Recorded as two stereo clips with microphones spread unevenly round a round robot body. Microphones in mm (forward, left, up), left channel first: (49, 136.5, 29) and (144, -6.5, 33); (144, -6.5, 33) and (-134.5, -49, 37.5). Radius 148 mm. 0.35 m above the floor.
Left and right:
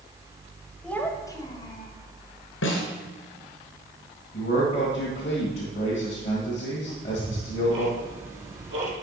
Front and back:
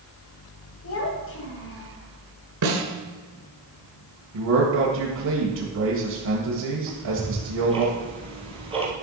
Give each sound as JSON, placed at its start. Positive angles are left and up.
{"t": 0.8, "sound": "a child speaking", "azimuth_deg": 40, "distance_m": 1.4}
{"t": 2.6, "sound": "a snare drum", "azimuth_deg": 150, "distance_m": 1.6}
{"t": 4.3, "sound": "a man speaking", "azimuth_deg": 175, "distance_m": 1.6}
{"t": 6.9, "sound": "ticking", "azimuth_deg": -100, "distance_m": 2.5}